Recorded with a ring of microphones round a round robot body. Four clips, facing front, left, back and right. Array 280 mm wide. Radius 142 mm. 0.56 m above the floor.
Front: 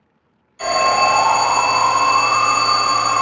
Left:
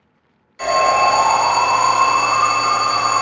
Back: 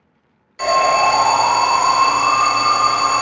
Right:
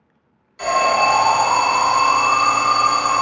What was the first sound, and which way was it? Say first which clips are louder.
An alarm: left 2 dB, back 1 dB; straight behind.